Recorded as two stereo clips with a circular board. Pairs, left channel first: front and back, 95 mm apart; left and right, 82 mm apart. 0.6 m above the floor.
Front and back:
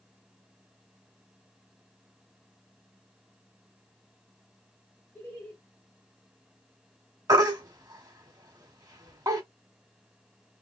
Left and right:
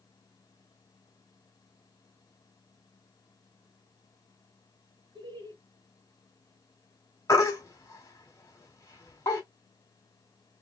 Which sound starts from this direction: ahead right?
Laughter, at 5.2 s.